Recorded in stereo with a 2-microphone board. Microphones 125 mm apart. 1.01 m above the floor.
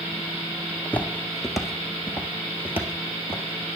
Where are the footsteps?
15° left (ahead or behind), 1.0 m; by 3.8 s 20° right (ahead or behind), 1.9 m.